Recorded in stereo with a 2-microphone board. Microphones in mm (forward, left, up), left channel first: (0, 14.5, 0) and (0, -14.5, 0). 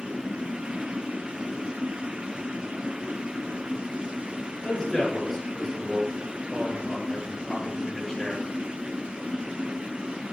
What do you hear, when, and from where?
4.6 s a man speaking: 15° left (ahead or behind), 7 m